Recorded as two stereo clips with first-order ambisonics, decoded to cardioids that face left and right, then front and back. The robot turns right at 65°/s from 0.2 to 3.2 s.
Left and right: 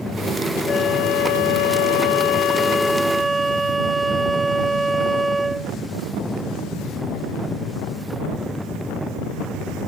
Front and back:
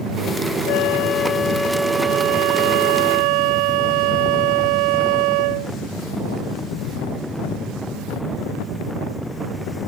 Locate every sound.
0.7 s a flute: 25° left; by 5.7 s 170° right